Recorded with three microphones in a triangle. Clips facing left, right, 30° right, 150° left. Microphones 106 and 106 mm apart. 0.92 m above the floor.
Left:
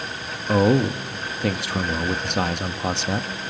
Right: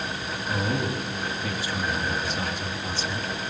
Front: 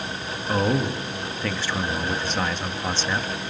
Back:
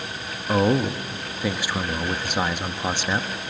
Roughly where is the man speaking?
Left.